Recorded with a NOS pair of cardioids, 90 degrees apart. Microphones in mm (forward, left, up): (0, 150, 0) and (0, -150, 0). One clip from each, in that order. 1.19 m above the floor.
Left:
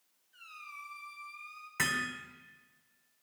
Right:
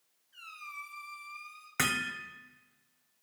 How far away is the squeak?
About 4.5 m.